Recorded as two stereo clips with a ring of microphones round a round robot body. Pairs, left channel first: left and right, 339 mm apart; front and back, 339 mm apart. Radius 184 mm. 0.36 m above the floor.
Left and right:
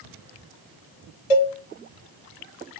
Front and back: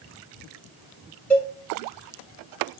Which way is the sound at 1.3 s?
85° left.